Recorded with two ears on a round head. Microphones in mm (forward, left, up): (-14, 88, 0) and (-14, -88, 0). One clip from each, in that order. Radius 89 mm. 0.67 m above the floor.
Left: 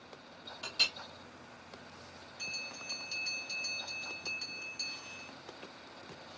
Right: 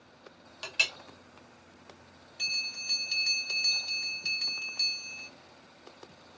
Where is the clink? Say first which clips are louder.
Right 3 dB; 65° right (ahead or behind), 1.3 m.